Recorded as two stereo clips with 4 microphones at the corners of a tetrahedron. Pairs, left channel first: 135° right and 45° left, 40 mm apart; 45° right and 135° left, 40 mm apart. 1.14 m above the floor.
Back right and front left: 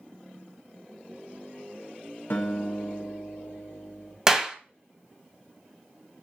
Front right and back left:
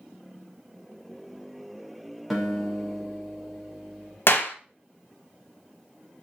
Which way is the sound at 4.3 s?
30° right.